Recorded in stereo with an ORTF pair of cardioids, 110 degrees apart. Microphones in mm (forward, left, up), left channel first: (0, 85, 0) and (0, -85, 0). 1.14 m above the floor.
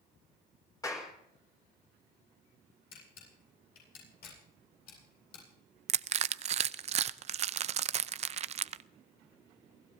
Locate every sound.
0.8 s a clap: 20° left, 4 m
2.9 s a camera shutter: 65° left, 10 m
5.9 s crushing: 40° right, 0.5 m